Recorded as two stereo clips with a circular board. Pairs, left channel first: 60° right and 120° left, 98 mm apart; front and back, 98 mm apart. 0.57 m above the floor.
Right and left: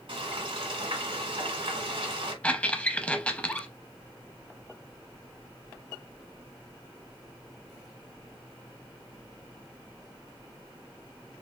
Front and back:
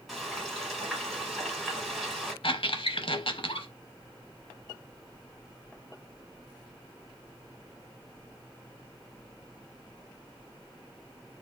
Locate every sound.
0.1 s frying: 90° left, 1.8 m
2.4 s a squeak: 15° left, 0.7 m